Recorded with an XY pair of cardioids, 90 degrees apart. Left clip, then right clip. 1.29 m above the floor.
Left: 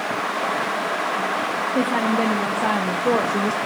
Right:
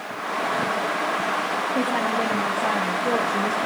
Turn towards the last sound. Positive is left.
turn(degrees=35)